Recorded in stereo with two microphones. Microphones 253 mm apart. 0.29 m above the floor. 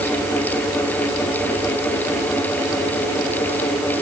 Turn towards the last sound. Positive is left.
No sound to turn to.